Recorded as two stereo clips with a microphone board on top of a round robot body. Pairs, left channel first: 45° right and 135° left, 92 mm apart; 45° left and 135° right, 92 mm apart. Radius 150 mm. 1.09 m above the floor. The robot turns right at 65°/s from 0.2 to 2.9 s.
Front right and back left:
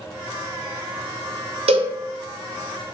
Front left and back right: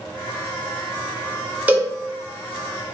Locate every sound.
1.7 s a cowbell: 150° left, 0.6 m; by 1.9 s 170° left, 0.6 m